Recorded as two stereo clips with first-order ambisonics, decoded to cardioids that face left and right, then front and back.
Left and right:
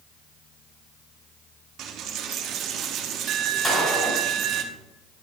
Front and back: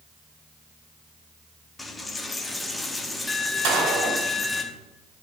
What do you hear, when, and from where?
1.8 s a dropped coin: 75° right, 0.8 m
3.6 s a gunshot: 170° left, 2.5 m